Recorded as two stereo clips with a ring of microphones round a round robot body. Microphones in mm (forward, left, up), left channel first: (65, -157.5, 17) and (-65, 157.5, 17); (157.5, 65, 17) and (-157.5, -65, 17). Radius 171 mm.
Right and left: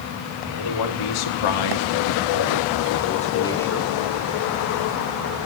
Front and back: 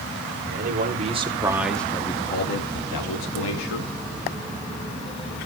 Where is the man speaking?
95° right, 3.5 m; by 3.9 s 25° left, 2.5 m.